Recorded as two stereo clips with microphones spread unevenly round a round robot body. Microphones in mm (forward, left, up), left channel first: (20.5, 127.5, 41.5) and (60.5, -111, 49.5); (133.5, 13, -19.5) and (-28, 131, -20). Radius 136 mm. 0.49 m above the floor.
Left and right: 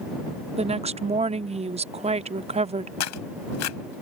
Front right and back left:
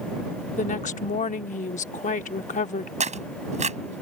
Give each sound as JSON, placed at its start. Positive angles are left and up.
{"t": 0.6, "sound": "a woman speaking", "azimuth_deg": -30}
{"t": 3.0, "sound": "tearing paper", "azimuth_deg": 90}